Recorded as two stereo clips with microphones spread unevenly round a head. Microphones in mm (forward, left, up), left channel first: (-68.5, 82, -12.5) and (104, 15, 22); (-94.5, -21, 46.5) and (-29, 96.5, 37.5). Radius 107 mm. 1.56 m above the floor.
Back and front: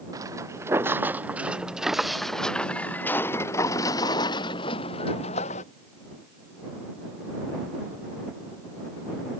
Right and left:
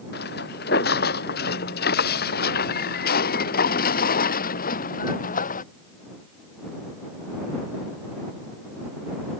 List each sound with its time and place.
0.1 s footsteps: 95° right; by 5.6 s 135° right